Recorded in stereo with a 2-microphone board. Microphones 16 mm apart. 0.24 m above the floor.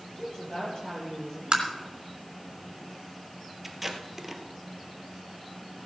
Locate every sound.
0.2 s a woman speaking: 35° left (ahead or behind), 5.5 m
1.5 s tapping: 50° right (ahead or behind), 3 m
3.6 s tape being pulled: 10° right (ahead or behind), 1.5 m